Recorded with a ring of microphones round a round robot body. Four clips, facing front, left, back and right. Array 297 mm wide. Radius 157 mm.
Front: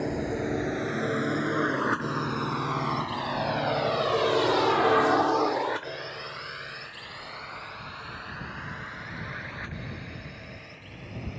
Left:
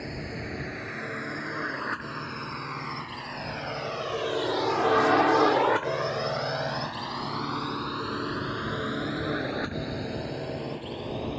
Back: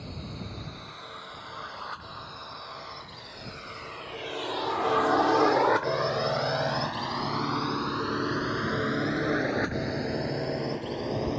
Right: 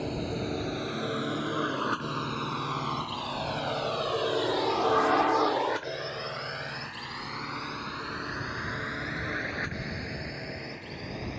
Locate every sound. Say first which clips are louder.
0.0 s a drone: right 4 dB, front 12 dB; 20° right; by 11.4 s 155° left